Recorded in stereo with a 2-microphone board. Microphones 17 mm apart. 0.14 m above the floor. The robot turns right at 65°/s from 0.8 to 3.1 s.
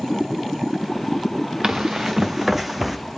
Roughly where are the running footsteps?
Right.